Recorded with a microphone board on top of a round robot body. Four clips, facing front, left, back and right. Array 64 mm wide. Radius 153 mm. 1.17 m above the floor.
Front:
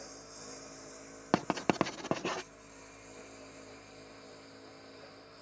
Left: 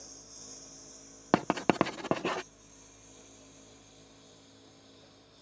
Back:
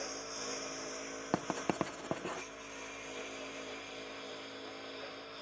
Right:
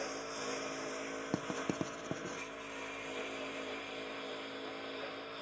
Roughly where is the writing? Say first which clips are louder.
Left 12 dB, front 5 dB; left.